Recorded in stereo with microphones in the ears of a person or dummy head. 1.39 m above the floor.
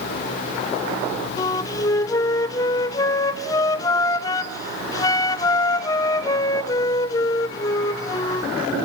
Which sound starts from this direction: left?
A flute, at 1.4 s.